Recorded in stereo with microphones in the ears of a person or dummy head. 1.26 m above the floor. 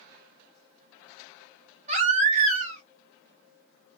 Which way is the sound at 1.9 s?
35° right (ahead or behind).